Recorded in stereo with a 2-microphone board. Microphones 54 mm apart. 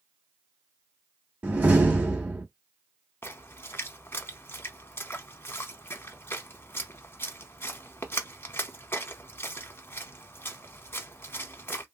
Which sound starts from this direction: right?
A door slam, at 1.4 s.